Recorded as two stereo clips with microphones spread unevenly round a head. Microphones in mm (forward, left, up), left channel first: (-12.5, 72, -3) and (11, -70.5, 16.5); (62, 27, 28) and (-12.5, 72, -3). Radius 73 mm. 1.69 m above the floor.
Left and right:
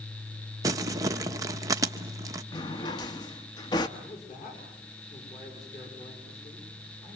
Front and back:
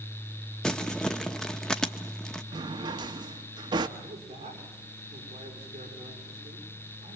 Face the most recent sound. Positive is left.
turn(degrees=145)